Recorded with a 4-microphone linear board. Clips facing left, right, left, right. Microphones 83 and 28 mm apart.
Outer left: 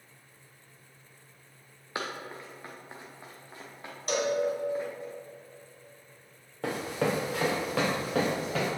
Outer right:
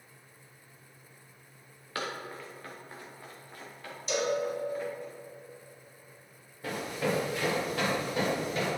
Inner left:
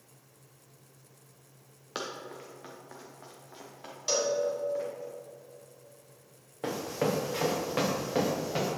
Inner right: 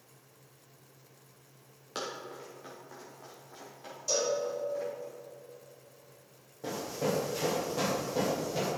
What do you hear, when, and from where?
1.9 s running footsteps: 20° left (ahead or behind), 1.8 m; by 5.1 s 25° left (ahead or behind), 4 m
4.1 s a cowbell: 50° left (ahead or behind), 1.4 m
6.6 s running footsteps: 75° left (ahead or behind), 2.5 m; by 8.7 s 80° left, 3.5 m